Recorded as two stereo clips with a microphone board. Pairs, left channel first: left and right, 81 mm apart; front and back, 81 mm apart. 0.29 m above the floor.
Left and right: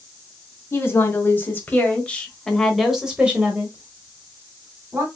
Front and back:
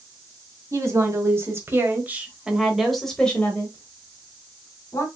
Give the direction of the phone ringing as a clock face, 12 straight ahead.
No phone ringing in this recording.